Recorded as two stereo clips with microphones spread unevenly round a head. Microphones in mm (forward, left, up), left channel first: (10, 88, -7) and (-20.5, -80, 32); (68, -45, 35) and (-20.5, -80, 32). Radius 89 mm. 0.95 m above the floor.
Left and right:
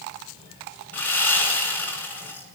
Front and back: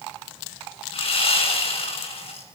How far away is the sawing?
About 6.5 m.